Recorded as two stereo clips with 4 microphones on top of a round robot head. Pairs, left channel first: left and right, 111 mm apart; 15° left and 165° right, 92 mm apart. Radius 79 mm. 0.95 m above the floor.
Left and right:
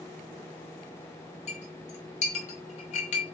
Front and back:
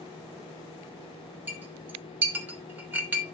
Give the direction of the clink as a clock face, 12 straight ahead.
8 o'clock.